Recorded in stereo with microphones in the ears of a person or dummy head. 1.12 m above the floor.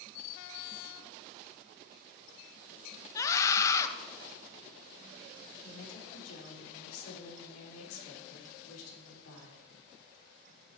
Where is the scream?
15° left (ahead or behind), 1.1 m.